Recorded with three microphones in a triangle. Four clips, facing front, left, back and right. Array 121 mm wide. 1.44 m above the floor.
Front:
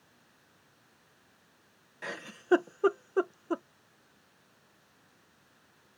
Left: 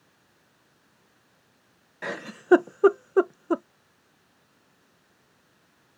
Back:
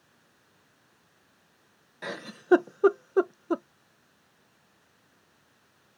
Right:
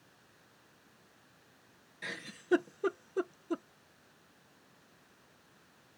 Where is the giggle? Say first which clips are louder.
Left 12 dB, back 4 dB; 115° left.